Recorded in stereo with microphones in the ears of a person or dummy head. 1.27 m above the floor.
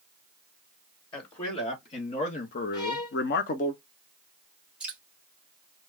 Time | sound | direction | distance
1.1 | a man speaking | 20° left (ahead or behind) | 1.4 m
2.7 | a violin | 25° left (ahead or behind) | 1.2 m
4.8 | dripping | 10° right (ahead or behind) | 1.0 m